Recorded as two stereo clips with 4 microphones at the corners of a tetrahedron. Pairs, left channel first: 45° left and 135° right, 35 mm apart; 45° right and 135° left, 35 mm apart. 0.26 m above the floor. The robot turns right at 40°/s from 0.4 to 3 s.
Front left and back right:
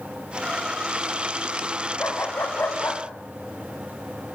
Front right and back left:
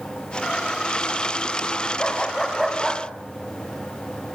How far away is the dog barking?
About 5 m.